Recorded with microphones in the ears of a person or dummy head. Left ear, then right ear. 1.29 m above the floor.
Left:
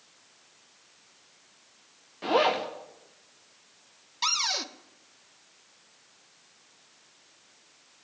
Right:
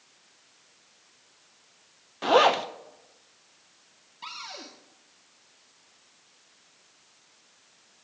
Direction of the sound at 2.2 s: 40° right (ahead or behind).